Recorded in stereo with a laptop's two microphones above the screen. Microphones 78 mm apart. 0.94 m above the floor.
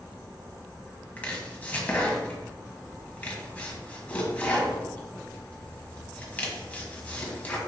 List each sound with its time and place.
1.2 s chopping: 20° left (ahead or behind), 1.0 m